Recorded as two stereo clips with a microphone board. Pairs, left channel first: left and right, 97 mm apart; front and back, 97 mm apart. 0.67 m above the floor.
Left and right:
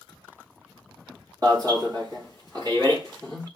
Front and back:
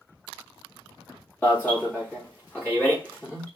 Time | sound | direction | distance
1.4 | an alarm | 65° right | 2 m